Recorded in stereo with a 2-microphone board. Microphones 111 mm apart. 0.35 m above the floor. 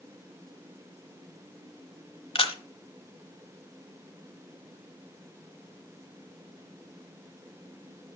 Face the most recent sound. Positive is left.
turn(degrees=55)  # may be behind; listen again after turning